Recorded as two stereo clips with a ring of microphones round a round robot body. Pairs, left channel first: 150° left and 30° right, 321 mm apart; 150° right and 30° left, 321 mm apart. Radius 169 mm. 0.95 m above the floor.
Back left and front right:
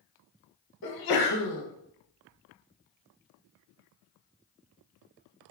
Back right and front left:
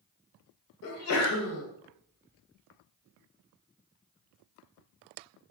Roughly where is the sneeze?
Behind.